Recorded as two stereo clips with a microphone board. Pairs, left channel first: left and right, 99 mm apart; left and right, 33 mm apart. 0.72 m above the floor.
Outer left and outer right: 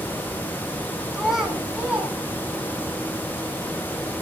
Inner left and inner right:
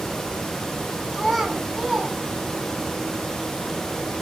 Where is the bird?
I don't hear a bird.